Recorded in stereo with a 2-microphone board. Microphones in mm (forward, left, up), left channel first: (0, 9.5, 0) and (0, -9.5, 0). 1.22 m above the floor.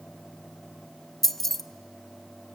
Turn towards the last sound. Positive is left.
turn(degrees=15)  # may be behind; listen again after turning